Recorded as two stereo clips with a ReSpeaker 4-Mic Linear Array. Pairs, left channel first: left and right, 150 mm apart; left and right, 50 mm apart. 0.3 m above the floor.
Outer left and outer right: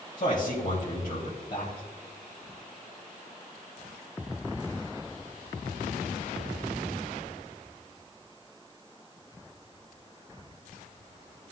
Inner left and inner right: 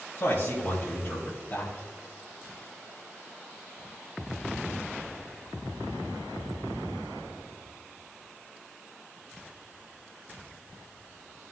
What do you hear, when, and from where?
0.2 s a man speaking: 55° left (ahead or behind), 2 m